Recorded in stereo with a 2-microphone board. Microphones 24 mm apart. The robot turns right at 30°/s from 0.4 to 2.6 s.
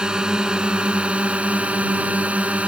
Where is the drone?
145° right; by 2.7 s 80° right.